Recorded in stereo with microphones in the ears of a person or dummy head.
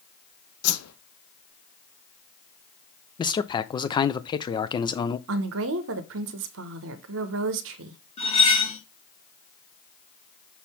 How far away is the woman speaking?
About 0.8 m.